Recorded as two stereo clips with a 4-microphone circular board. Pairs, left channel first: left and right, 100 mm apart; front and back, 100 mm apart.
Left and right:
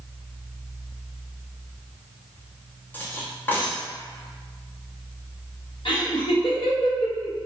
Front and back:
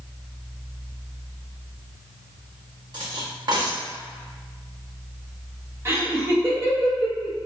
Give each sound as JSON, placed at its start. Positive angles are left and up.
{"t": 2.9, "sound": "cutlery clinking", "azimuth_deg": 155, "distance_m": 0.8}
{"t": 5.8, "sound": "laughter", "azimuth_deg": 120, "distance_m": 1.1}